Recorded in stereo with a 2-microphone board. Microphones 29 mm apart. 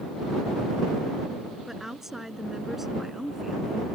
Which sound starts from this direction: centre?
A woman speaking, at 1.7 s.